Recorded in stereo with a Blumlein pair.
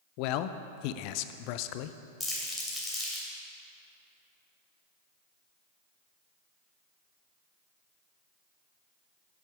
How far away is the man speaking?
About 0.5 m.